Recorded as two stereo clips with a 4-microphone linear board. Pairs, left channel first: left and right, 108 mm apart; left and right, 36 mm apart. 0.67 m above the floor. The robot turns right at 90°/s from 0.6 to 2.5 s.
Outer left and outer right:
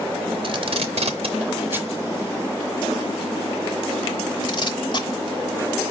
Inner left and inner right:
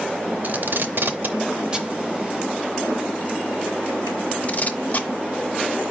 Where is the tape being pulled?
55° right (ahead or behind), 0.7 m; by 5.1 s 45° left (ahead or behind), 0.7 m.